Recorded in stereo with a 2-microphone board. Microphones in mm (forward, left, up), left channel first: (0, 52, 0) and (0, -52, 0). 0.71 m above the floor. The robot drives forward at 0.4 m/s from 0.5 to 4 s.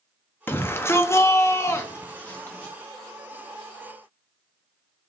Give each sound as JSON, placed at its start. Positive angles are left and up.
{"t": 0.5, "sound": "a shout", "side_deg": 20, "distance_m": 0.6}